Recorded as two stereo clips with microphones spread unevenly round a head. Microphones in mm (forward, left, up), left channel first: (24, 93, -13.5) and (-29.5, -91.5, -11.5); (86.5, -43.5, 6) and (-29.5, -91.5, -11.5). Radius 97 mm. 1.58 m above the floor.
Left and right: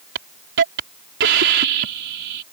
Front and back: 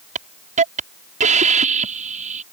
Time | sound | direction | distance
0.1 | a hiss | 135° right | ?